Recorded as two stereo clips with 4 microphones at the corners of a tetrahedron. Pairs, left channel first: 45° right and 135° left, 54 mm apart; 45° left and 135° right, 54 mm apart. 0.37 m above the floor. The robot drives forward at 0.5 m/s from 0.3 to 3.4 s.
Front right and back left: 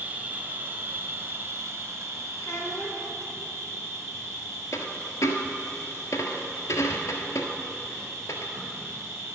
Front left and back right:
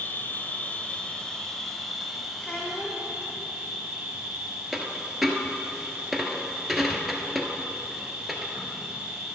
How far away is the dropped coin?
About 1.2 m.